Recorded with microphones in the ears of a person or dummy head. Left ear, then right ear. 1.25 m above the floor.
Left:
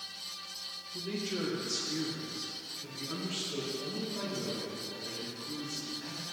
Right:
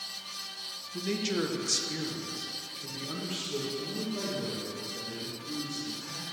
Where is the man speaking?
60° right (ahead or behind), 1.2 m; by 6.2 s centre (ahead or behind), 3 m.